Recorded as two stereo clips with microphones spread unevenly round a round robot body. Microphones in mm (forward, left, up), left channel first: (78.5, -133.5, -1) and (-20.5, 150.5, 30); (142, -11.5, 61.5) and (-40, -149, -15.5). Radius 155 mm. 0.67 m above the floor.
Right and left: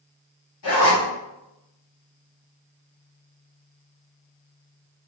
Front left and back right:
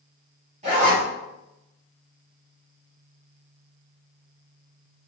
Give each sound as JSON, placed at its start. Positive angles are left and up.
{"t": 0.6, "sound": "a zipper", "azimuth_deg": -100, "distance_m": 2.0}